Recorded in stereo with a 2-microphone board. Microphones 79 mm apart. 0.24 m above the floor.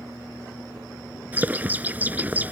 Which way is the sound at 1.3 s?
20° right (ahead or behind).